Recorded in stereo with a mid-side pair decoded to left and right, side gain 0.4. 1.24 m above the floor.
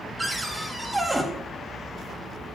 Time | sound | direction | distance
0.2 | a cupboard door | 15° right | 2.5 m